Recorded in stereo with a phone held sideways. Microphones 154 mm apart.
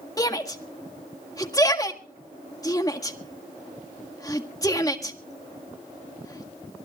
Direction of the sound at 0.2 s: 25° left (ahead or behind).